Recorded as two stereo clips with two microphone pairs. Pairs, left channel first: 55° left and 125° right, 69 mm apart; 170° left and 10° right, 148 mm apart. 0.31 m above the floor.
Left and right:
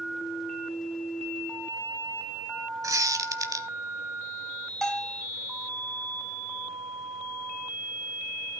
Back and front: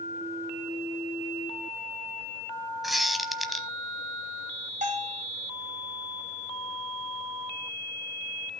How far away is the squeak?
About 0.9 m.